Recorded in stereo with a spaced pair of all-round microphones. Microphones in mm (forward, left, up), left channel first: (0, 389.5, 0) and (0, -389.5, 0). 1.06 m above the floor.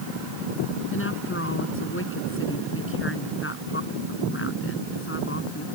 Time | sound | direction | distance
0.9 | a woman speaking | 15° left (ahead or behind) | ?